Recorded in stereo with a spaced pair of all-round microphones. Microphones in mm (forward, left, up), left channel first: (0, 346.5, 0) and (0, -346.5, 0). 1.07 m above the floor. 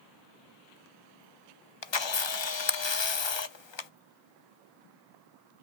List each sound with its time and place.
1.8 s a camera shutter: 45° left (ahead or behind), 0.7 m